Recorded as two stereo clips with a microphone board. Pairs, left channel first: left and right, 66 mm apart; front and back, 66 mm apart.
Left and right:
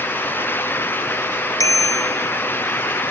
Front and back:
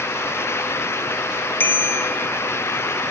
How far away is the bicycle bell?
About 2 m.